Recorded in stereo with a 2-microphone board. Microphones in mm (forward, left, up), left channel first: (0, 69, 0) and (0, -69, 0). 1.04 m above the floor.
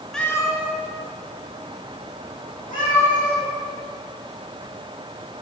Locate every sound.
0.1 s a cat meowing: 5° left (ahead or behind), 1.3 m; by 3.4 s 75° left (ahead or behind), 5.5 m